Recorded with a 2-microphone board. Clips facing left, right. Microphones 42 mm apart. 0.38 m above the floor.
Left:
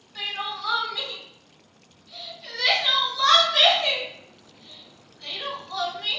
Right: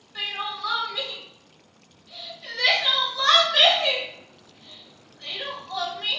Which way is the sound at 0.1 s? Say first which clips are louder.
Right 1 dB; 30° right (ahead or behind).